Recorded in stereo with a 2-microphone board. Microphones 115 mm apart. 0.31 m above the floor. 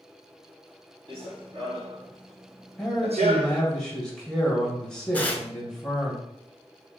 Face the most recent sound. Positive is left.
turn(degrees=15)  # may be behind; listen again after turning